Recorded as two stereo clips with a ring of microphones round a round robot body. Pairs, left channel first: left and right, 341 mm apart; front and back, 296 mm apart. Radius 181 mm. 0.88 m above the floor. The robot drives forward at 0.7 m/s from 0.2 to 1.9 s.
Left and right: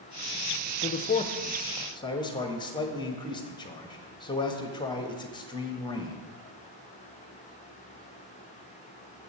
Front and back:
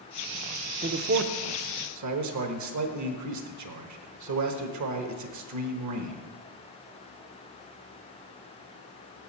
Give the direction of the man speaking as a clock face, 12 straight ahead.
8 o'clock.